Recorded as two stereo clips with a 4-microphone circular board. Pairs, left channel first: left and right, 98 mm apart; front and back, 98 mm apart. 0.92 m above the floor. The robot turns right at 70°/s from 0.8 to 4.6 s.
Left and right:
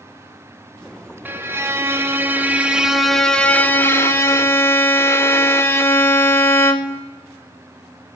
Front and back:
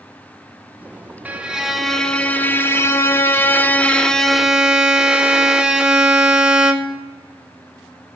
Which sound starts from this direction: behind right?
A violin, at 1.2 s.